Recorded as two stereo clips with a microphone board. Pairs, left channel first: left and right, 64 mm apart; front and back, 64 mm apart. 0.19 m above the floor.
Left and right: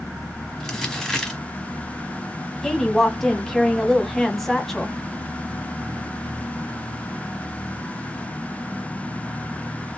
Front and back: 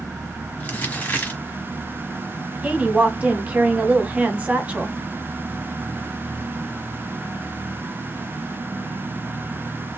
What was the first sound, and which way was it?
Crumpling, 15° left.